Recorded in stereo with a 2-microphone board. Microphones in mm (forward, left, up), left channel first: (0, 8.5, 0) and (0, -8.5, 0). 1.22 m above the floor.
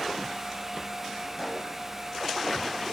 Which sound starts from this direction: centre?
A pop, at 1.4 s.